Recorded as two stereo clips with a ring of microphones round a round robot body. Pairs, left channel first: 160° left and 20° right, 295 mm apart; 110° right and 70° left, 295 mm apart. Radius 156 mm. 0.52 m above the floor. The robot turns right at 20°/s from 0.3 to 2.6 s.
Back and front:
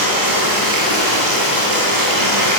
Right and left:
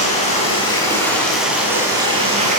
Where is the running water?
45° right, 10 m; by 2.6 s straight ahead, 10 m.